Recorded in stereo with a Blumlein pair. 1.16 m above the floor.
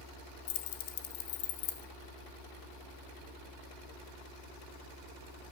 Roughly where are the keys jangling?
Ahead left.